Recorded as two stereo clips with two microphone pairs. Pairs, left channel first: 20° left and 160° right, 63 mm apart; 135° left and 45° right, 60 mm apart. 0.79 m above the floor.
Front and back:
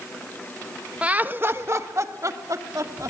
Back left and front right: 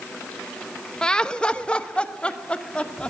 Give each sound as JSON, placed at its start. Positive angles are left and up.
{"t": 1.0, "sound": "laughter", "azimuth_deg": 180, "distance_m": 1.0}